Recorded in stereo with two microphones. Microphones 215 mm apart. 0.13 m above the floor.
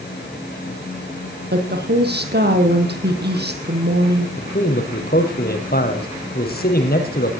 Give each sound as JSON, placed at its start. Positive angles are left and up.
{"t": 1.5, "sound": "a woman speaking", "side_deg": -50, "distance_m": 5.0}
{"t": 4.4, "sound": "a man speaking", "side_deg": 45, "distance_m": 5.0}